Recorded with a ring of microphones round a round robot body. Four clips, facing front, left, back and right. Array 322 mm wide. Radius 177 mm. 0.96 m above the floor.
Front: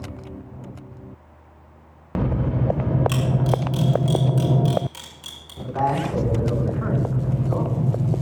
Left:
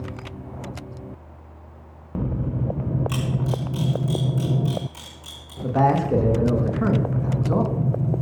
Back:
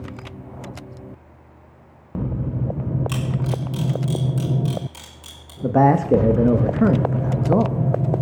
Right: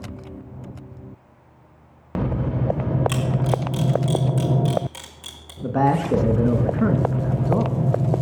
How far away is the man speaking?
About 1.3 m.